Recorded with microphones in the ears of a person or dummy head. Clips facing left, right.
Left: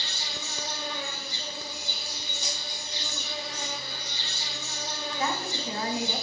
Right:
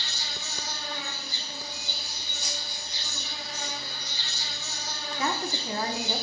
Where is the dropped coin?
25° left (ahead or behind), 2 m.